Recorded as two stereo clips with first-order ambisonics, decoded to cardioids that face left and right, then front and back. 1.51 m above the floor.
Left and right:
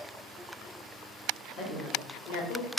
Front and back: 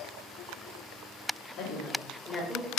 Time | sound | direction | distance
1.6 | a woman speaking | 40° left | 1.4 m